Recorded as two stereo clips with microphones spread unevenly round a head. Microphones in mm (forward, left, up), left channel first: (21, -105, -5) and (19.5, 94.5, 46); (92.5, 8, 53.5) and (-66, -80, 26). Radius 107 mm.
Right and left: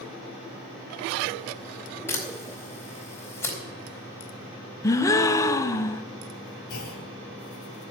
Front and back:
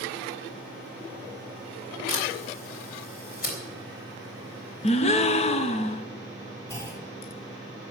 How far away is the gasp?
About 0.6 m.